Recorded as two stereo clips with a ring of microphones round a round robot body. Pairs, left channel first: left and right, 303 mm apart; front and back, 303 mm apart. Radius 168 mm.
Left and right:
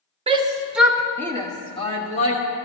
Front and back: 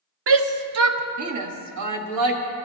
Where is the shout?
155° right, 0.9 m; by 2.4 s 155° left, 1.6 m.